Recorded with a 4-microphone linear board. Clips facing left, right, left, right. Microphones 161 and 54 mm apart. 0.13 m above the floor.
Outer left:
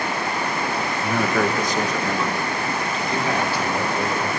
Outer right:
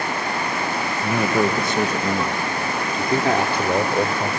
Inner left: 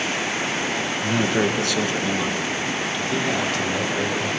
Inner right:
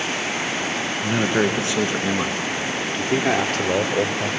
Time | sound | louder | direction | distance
1.0 | a man speaking | outer right 2 dB, inner right 1 dB | 10° right (ahead or behind) | 1.2 m